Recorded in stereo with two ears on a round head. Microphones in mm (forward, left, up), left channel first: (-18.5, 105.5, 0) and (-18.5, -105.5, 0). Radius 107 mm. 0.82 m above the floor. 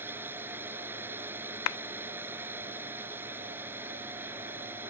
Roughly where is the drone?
Centre.